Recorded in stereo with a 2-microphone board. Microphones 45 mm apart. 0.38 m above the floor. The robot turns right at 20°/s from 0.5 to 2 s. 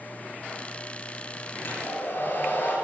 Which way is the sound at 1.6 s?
55° left (ahead or behind).